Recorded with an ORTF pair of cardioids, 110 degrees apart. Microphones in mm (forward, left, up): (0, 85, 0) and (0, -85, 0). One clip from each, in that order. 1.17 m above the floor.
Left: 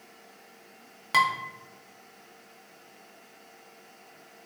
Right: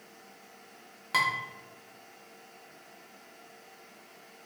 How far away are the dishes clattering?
About 0.5 m.